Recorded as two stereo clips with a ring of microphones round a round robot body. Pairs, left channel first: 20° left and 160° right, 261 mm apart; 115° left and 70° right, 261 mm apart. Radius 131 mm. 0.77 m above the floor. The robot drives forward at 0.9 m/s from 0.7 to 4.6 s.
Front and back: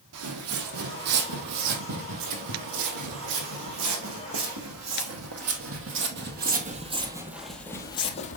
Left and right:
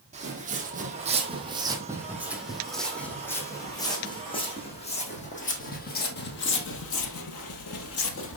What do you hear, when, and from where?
0.1 s footsteps: 130° right, 1.9 m; by 8.4 s 80° left, 1.3 m